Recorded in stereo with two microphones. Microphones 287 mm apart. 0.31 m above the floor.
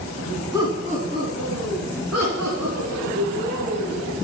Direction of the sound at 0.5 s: 10° right (ahead or behind).